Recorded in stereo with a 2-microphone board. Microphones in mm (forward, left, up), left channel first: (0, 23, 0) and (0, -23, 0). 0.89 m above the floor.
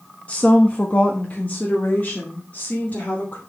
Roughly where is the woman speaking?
Left.